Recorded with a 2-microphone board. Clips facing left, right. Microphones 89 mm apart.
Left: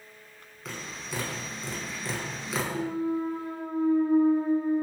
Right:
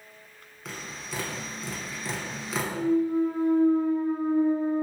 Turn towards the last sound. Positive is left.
turn(degrees=45)  # may be behind; listen again after turning